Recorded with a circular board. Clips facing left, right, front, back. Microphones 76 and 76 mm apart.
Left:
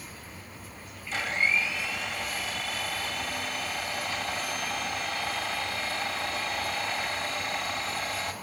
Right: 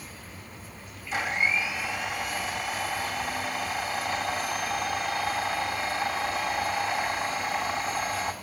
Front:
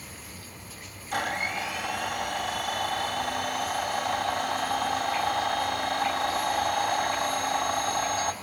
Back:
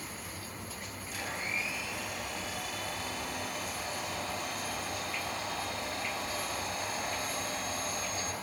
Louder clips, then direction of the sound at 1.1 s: Right 1 dB, front 9 dB; 10° right.